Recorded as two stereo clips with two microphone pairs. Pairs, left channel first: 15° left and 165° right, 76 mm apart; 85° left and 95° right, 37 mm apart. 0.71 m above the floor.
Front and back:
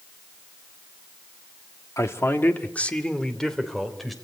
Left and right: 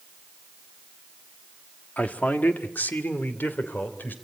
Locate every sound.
2.0 s a man speaking: 50° left, 1.6 m; by 4.1 s 105° left, 3.5 m